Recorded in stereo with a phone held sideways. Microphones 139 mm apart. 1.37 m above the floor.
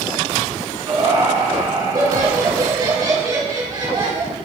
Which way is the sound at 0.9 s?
30° right (ahead or behind).